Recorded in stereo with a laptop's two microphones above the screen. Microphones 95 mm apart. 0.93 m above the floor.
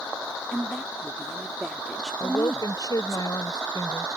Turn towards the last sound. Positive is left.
turn(degrees=50)  # may be behind; listen again after turning